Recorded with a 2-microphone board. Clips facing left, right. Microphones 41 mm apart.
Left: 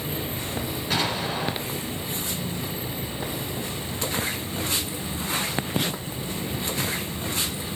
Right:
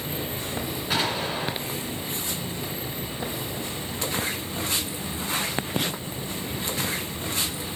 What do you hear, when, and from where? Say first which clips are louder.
0.9 s an explosion: even; 5° right (ahead or behind), 2 m